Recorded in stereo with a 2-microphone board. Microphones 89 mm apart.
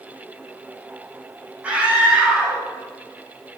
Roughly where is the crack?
No crack in this recording.